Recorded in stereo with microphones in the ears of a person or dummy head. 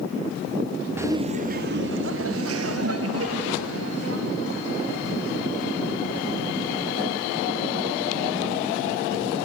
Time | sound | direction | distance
1.0 | laughter | 10° right (ahead or behind) | 0.7 m